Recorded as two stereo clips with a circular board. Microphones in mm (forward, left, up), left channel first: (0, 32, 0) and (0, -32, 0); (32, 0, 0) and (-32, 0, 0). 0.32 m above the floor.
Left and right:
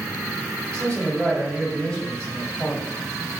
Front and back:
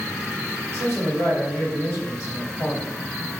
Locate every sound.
0.7 s a man speaking: 15° left, 1.5 m